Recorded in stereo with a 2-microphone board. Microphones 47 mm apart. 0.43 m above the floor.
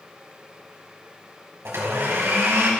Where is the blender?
70° right (ahead or behind), 3 m.